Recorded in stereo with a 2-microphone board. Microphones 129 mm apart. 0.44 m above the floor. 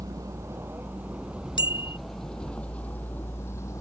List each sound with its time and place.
0.0 s a vehicle: 25° right (ahead or behind); by 3.8 s 20° left (ahead or behind)
1.6 s a bicycle bell: 40° left (ahead or behind)